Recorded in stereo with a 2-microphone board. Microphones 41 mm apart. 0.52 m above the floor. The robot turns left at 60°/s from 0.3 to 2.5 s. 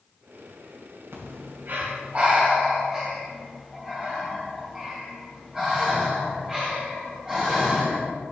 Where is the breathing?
70° right (ahead or behind), 2.5 m; by 8.1 s 15° right (ahead or behind), 2.5 m.